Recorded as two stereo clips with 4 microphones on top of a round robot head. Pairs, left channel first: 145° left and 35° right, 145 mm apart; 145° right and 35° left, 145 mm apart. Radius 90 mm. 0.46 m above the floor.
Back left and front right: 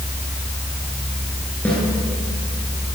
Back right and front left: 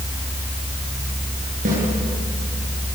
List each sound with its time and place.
1.6 s a snare drum: 65° left, 9.5 m